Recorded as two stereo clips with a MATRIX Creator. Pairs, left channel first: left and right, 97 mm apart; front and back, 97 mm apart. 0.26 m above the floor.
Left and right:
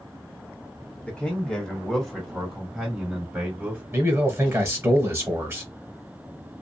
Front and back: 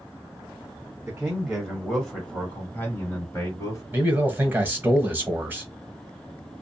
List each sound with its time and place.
1.1 s a man speaking: 145° left, 1.4 m; by 3.8 s 20° right, 1.8 m
3.9 s a man speaking: 130° right, 1.0 m